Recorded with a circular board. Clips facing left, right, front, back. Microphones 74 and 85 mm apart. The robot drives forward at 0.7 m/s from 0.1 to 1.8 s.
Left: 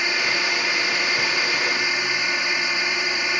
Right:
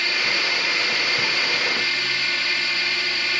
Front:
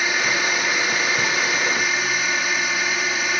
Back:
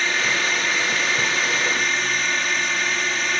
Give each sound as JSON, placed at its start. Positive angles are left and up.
{"t": 0.0, "sound": "a drone", "azimuth_deg": 65}